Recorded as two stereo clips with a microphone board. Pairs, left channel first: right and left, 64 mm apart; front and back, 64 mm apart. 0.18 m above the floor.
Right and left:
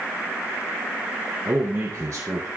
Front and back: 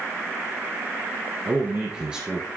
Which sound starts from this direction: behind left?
A man speaking, at 1.4 s.